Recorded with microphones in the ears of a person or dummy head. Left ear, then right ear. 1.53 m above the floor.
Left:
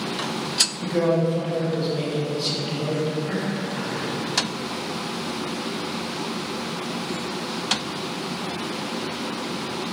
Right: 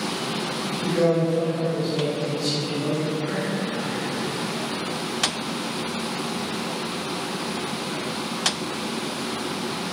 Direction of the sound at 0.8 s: 35° left (ahead or behind).